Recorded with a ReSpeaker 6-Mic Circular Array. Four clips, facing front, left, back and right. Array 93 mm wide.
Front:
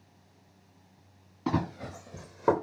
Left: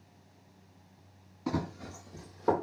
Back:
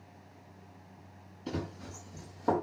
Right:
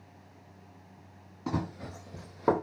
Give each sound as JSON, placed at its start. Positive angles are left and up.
{"t": 1.5, "sound": "running footsteps", "azimuth_deg": -10, "distance_m": 1.1}